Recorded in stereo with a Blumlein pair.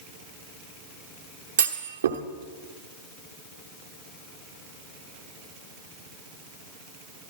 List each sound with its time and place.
1.6 s a clunk: 65° right, 1.0 m